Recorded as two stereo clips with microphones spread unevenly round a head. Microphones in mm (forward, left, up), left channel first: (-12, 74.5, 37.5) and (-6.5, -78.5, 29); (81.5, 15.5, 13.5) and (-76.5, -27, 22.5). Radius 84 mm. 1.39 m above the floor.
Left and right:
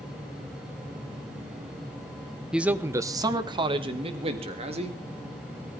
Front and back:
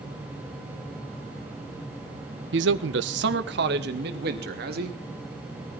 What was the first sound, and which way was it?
A man speaking, 175° right.